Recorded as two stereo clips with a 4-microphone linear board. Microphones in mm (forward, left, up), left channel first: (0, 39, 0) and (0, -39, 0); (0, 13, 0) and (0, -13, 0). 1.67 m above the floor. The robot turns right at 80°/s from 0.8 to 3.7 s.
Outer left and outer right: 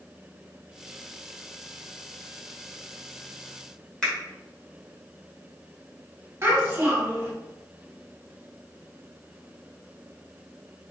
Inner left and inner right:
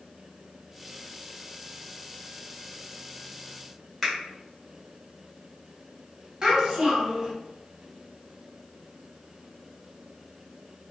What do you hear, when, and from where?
4.0 s a finger snap: 10° left (ahead or behind), 1.0 m
6.4 s a child speaking: 35° right (ahead or behind), 1.0 m